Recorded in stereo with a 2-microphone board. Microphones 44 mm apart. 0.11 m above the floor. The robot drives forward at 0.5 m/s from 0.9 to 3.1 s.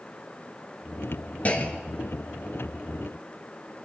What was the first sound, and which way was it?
A clunk, 35° left (ahead or behind).